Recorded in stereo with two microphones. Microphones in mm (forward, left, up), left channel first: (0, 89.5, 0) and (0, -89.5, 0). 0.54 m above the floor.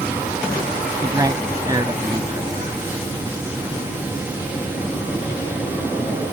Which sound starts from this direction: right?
A man speaking, at 1.0 s.